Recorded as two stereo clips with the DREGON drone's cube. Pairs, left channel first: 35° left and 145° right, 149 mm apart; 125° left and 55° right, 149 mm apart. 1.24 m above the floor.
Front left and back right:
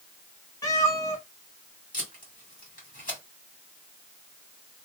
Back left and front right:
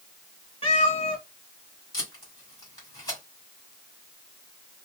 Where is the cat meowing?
90° left, 1.7 m.